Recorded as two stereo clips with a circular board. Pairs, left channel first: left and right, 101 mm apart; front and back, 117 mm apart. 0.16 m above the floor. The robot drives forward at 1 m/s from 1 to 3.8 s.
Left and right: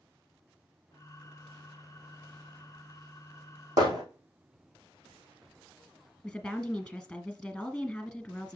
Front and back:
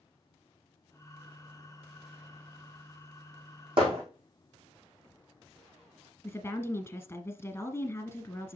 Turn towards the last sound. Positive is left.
turn(degrees=20)